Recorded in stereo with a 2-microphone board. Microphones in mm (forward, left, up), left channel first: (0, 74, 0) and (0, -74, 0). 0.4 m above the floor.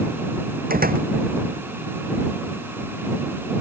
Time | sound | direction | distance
0.7 | a door slam | 80° right | ?